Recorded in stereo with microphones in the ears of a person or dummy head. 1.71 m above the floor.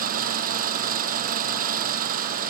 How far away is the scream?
I don't hear a scream.